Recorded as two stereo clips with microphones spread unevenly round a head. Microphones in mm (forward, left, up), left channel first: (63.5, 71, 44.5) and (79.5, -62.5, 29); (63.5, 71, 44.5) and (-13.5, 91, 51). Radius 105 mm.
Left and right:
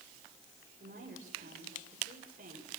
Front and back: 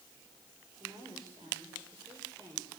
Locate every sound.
0.8 s a woman speaking: 130° right, 7 m